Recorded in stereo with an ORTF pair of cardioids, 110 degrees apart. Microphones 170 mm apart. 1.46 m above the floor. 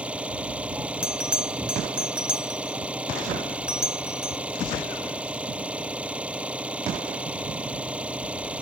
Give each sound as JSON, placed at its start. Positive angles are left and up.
{"t": 0.0, "sound": "an engine running", "azimuth_deg": -5}
{"t": 1.0, "sound": "a bell", "azimuth_deg": -5}